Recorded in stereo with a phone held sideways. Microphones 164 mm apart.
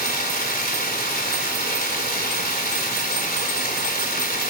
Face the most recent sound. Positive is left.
turn(degrees=65)  # may be behind; listen again after turning